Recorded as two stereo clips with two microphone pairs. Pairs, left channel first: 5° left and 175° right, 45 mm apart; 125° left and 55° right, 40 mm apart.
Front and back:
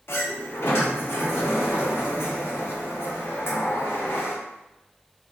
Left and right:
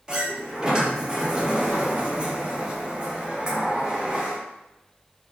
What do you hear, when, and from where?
0.1 s a sliding door: 10° left, 0.5 m